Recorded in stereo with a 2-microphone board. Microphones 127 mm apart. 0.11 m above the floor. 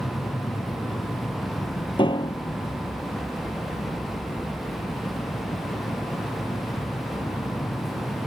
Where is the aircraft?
45° left (ahead or behind).